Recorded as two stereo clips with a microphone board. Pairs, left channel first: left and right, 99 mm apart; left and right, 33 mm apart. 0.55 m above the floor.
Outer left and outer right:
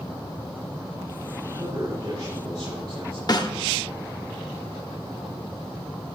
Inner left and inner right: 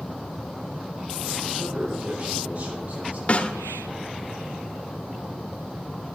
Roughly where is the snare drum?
Left.